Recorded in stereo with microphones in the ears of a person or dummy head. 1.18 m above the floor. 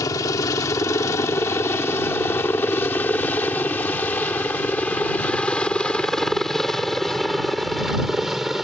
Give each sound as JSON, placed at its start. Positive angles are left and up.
{"t": 0.0, "sound": "a helicopter", "side_deg": 15}